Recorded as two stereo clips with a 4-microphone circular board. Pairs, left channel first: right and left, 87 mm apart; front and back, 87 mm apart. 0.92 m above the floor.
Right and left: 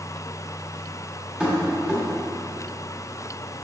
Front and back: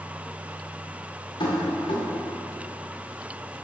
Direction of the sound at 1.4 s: 10° left.